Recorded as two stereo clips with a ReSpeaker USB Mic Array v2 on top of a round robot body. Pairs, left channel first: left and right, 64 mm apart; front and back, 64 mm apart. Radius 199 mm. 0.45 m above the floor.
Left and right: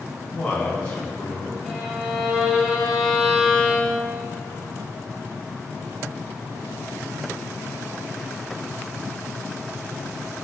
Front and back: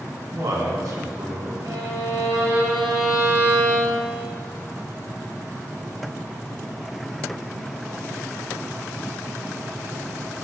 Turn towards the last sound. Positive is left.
turn(degrees=175)